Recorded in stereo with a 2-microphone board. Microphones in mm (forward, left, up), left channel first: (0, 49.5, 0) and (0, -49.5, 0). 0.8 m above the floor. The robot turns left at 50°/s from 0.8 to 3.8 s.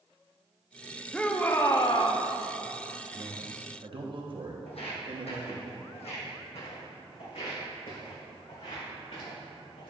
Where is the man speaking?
65° right, 1.1 m; by 5.7 s 95° right, 1.1 m.